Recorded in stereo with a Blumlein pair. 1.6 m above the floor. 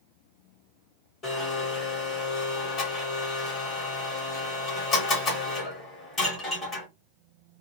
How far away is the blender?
About 3 m.